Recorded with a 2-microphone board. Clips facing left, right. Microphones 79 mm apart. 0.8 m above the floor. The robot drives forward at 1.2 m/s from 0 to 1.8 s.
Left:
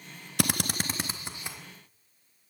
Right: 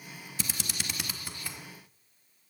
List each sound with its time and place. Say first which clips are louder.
0.4 s a drill: left 10 dB; 65° left (ahead or behind), 0.6 m; by 1.6 s 20° left (ahead or behind), 1.5 m